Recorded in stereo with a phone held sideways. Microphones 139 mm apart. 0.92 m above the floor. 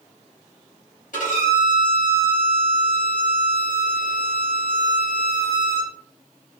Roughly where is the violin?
Left.